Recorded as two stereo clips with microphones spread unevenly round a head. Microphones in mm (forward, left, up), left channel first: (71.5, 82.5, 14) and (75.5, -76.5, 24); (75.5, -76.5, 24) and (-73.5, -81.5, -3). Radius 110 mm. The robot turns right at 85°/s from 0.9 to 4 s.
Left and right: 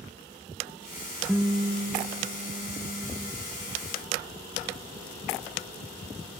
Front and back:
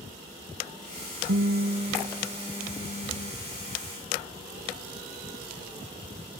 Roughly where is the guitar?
Behind.